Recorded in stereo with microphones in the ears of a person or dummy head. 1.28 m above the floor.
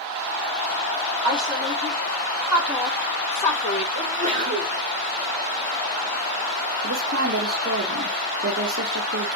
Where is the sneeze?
50° right (ahead or behind), 1.6 m.